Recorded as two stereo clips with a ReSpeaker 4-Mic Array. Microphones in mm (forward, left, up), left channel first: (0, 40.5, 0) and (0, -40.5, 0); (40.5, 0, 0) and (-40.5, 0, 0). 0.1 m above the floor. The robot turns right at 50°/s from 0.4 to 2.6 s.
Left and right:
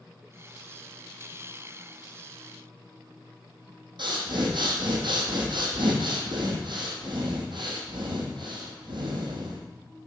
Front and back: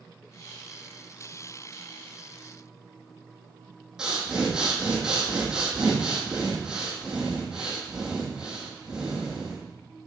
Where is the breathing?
100° right, 1.8 m.